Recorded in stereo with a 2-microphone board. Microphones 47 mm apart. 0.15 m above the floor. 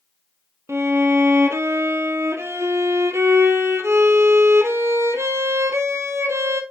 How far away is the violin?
About 1.4 m.